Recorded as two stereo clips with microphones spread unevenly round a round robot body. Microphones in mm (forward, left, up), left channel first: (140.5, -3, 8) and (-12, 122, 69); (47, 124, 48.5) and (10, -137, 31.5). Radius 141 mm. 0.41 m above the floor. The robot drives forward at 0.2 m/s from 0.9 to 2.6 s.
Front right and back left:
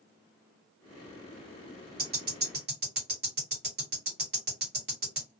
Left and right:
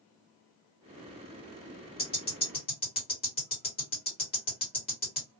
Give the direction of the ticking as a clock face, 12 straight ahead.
8 o'clock.